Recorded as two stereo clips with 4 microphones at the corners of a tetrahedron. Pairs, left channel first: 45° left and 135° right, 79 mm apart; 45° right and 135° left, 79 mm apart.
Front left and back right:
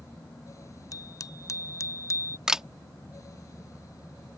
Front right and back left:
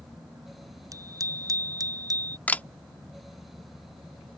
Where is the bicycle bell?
90° left; by 2.4 s 95° left.